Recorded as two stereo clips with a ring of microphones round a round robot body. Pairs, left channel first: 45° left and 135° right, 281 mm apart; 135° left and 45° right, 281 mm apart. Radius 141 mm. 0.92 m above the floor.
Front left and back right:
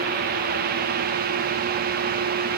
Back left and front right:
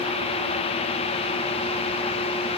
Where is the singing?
No singing in this recording.